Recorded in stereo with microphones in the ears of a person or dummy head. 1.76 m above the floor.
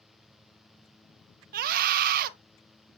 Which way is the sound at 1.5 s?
50° right (ahead or behind).